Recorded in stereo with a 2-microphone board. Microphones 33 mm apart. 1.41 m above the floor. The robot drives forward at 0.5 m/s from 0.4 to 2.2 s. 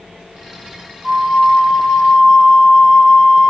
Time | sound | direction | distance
1.0 | a flute | centre (ahead or behind) | 1.4 m